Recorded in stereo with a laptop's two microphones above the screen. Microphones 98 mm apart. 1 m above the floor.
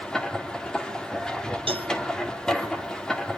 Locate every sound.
0.0 s a machine running: 5° left (ahead or behind), 2.5 m
1.7 s a cowbell: 70° right (ahead or behind), 1.1 m